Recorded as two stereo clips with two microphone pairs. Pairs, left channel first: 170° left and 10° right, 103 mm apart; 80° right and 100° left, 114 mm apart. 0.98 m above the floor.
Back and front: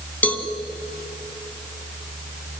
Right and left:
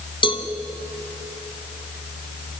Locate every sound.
0.2 s a cowbell: 115° right, 1.5 m